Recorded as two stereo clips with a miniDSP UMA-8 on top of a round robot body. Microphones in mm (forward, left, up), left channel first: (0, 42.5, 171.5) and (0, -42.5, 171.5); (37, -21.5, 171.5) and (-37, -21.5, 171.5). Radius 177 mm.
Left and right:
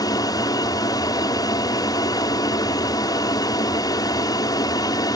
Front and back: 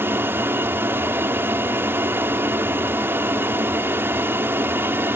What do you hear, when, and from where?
0.0 s an aircraft: 120° left